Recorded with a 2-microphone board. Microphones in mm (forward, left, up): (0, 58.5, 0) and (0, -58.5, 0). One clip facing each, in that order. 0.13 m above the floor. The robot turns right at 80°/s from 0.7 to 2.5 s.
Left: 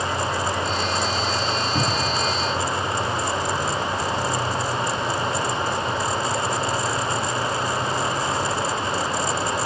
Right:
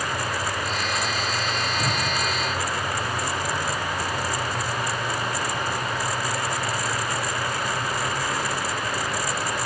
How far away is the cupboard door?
About 4.5 m.